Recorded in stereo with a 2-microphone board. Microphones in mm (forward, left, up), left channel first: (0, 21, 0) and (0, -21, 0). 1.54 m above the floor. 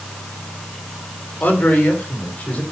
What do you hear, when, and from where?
1.4 s a man speaking: 50° left (ahead or behind), 4 m; by 2.6 s 35° left (ahead or behind), 5 m